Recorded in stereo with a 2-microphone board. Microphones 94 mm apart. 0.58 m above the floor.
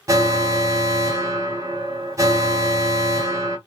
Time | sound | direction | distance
0.1 | an alarm | 35° right (ahead or behind) | 1.0 m